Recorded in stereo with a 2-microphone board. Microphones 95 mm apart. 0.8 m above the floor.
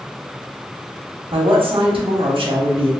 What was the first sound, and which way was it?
A woman speaking, 65° right (ahead or behind).